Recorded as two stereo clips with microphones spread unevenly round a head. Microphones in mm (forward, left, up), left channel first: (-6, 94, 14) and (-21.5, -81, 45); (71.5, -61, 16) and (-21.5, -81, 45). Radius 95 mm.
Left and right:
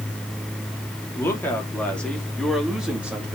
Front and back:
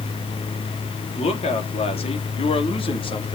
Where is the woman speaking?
5° left, 3.5 m; by 3.4 s 15° right, 3 m.